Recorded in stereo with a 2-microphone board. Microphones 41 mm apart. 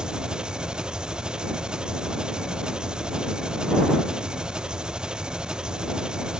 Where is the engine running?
20° right (ahead or behind).